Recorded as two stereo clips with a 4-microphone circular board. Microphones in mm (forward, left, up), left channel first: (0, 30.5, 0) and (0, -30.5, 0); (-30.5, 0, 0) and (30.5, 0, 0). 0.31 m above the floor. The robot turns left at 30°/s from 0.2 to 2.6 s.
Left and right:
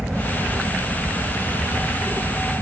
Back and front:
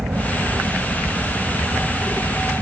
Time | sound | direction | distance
0.0 | a helicopter | 20° right | ?